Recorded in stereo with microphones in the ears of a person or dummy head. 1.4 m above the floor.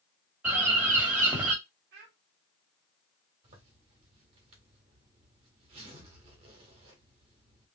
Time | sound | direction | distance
0.4 | a bird | 10° right (ahead or behind) | 1.4 m
1.9 | a child speaking | 55° right (ahead or behind) | 0.7 m
3.4 | a zipper | 35° right (ahead or behind) | 1.5 m